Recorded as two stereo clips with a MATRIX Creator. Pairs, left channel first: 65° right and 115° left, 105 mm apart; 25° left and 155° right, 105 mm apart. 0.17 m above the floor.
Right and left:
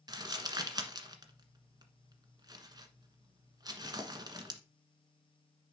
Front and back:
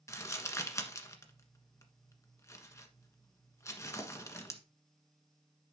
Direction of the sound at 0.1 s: 75° left.